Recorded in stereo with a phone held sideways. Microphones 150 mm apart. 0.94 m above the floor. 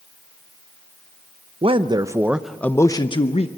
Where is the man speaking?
40° right (ahead or behind), 0.8 m; by 3.5 s 45° left (ahead or behind), 0.8 m.